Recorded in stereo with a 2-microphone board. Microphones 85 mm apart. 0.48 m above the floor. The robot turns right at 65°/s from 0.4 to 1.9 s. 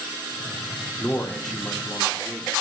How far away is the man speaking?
About 1.0 m.